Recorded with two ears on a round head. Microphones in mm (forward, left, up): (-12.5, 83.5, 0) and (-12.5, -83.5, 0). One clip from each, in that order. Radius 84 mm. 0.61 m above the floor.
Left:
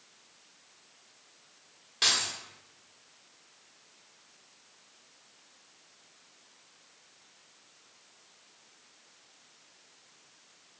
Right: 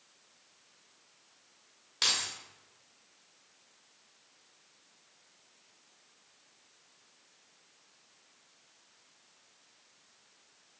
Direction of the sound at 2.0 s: 25° right (ahead or behind).